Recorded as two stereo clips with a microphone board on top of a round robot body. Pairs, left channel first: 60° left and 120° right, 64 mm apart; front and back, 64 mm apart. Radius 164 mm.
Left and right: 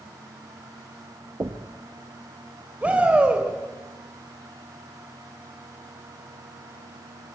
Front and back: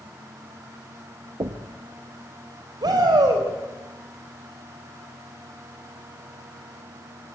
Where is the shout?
170° left, 6 m.